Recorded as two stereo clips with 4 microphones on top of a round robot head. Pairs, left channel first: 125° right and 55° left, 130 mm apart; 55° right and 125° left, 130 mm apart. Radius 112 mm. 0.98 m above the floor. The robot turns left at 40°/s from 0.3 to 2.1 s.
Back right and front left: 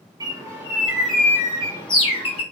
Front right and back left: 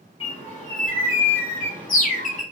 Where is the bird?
5° right, 1.5 m; by 2.4 s 80° right, 1.5 m.